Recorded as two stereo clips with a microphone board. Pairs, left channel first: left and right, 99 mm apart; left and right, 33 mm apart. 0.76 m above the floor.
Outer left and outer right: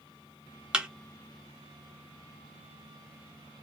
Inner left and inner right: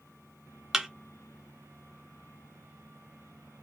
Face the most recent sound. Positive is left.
turn(degrees=-10)  # may be behind; listen again after turning